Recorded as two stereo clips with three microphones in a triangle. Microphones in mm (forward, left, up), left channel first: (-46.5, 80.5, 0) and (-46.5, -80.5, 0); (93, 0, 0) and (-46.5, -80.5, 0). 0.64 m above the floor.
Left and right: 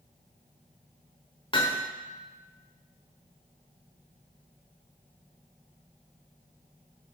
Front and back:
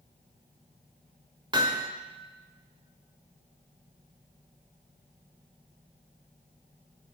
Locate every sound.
1.5 s hammering: 150° left, 1.2 m